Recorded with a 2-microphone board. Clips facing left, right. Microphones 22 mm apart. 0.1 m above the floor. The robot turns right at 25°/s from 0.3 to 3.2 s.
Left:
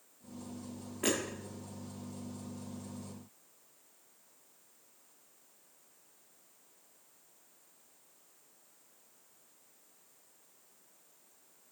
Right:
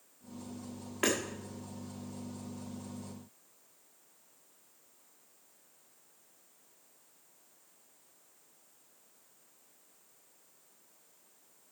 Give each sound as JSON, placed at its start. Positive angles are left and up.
{"t": 1.0, "sound": "hammering", "side_deg": -70, "distance_m": 5.0}